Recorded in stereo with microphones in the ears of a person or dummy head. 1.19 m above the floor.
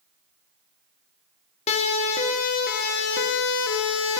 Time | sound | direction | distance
1.7 | a siren | 35° left (ahead or behind) | 4 m